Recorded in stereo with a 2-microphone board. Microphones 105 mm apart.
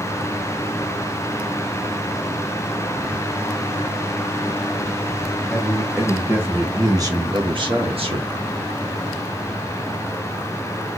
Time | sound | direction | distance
5.5 | a man speaking | centre (ahead or behind) | 1.9 m